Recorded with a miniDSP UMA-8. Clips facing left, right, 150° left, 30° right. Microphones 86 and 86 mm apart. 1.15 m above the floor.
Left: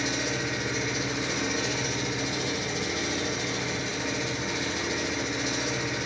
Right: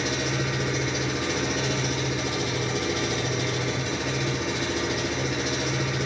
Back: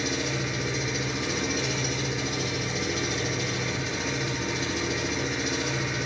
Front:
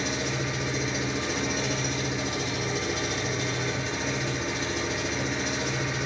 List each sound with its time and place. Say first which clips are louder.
0.0 s an engine running: right 2 dB, even; 120° right, 3.5 m